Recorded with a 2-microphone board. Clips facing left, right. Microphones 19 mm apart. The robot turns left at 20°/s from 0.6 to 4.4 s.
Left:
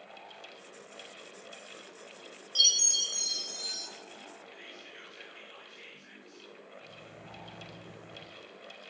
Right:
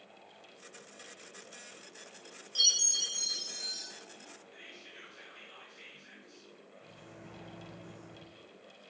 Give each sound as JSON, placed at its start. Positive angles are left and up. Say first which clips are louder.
{"t": 2.5, "sound": "a chime", "louder": "left 3 dB", "side_deg": 15, "distance_m": 1.1}
{"t": 4.5, "sound": "whispering", "louder": "left 3 dB", "side_deg": 30, "distance_m": 2.0}
{"t": 6.8, "sound": "a microwave", "louder": "left 3 dB", "side_deg": -45, "distance_m": 0.8}